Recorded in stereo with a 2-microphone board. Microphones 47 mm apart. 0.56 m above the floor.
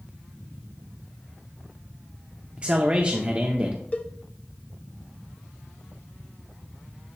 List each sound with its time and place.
2.6 s a man speaking: 25° right (ahead or behind), 0.7 m
3.9 s a cowbell: 30° left (ahead or behind), 0.5 m